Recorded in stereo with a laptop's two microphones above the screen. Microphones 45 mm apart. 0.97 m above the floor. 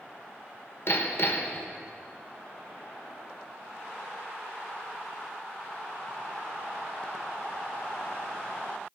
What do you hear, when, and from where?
0.9 s hammering: 60° left (ahead or behind), 1.3 m